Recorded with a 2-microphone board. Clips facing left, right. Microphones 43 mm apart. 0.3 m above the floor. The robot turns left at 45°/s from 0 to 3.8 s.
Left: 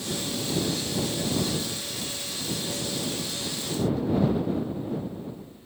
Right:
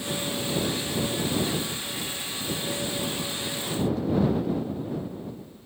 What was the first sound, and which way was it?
Only background noise.